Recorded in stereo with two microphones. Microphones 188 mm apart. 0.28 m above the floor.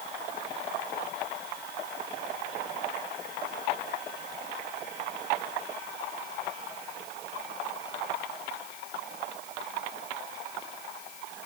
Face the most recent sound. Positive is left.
No sound to turn to.